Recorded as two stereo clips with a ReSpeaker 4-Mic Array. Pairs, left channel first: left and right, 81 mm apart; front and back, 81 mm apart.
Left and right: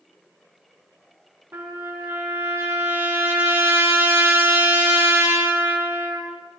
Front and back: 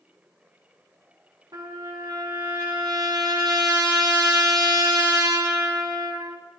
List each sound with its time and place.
1.5 s a trumpet: 150° right, 2.5 m